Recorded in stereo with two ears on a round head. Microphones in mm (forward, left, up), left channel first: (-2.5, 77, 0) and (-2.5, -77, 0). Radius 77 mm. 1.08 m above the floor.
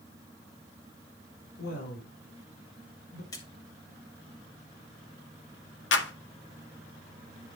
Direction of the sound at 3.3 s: 20° left (ahead or behind).